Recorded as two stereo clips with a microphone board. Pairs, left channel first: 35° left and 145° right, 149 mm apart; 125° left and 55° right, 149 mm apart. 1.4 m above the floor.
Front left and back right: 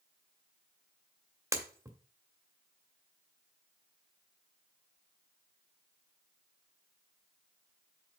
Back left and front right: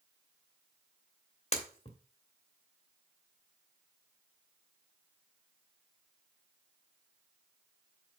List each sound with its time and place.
1.5 s breaking glass: 150° left, 1.3 m